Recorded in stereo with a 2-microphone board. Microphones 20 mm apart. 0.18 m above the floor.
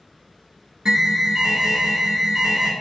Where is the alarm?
35° right (ahead or behind), 1.0 m.